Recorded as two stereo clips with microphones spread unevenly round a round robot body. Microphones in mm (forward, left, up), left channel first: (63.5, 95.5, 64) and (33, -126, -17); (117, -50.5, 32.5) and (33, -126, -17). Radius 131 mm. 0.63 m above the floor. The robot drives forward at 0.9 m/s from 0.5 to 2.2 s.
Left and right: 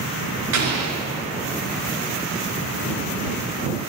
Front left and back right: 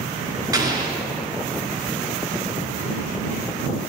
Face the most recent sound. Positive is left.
turn(degrees=-100)